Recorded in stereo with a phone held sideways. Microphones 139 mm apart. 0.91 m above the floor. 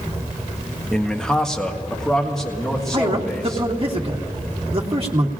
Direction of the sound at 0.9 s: 5° left (ahead or behind).